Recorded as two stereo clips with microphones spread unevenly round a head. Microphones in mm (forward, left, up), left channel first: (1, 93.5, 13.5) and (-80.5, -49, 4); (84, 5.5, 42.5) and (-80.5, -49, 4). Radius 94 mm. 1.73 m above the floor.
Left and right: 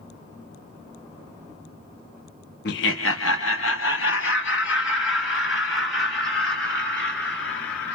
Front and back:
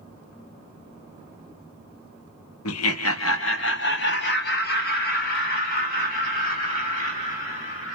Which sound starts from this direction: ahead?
Laughter, at 2.6 s.